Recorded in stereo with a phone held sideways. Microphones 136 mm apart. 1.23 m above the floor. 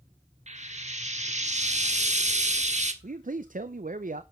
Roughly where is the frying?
Right.